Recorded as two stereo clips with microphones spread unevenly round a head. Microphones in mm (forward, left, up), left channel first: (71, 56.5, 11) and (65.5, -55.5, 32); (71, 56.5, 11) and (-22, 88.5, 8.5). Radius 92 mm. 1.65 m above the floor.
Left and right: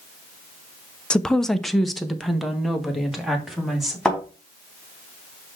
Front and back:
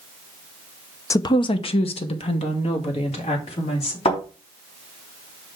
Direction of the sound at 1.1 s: 10° right.